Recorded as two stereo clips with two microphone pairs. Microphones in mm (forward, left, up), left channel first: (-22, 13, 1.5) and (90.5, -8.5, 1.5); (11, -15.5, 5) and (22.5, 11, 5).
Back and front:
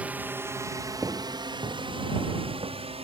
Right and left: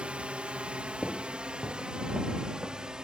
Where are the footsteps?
30° right; by 3.0 s 25° left.